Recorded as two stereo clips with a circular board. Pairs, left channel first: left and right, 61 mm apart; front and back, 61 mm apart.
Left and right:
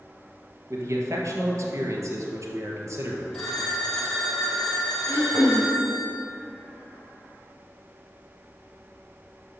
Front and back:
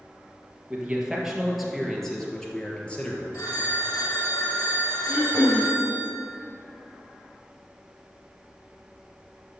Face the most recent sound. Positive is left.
turn(degrees=25)